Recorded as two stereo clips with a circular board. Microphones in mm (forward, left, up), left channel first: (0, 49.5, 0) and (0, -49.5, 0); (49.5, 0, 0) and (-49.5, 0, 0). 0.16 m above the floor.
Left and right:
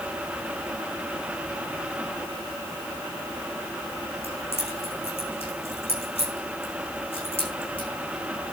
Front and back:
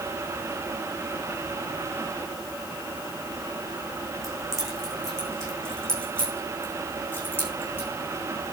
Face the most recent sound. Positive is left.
turn(degrees=65)